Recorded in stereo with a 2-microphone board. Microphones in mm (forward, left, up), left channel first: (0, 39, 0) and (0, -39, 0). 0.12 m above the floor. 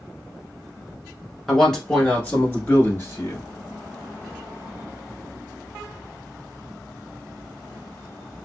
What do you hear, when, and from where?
1.5 s a man speaking: centre (ahead or behind), 1.1 m; by 3.5 s 35° left (ahead or behind), 1.8 m